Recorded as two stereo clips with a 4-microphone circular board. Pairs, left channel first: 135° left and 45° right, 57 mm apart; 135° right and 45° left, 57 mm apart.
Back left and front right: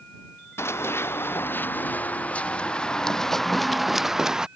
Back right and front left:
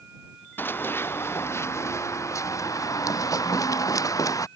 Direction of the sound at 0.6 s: 175° left.